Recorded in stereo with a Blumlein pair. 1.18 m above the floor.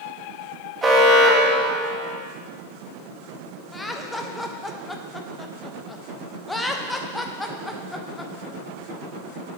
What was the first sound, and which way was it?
An alarm, 15° right.